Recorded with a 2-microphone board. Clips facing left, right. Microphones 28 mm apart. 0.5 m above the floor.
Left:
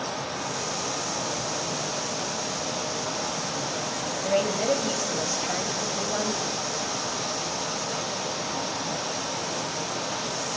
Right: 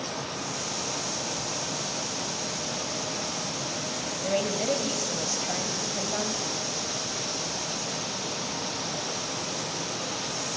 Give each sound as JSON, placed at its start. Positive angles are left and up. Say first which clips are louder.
{"t": 4.2, "sound": "a woman speaking", "louder": "left 3 dB", "side_deg": 10, "distance_m": 2.5}